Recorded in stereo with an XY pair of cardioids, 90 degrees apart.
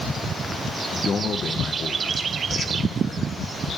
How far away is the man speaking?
About 1.4 m.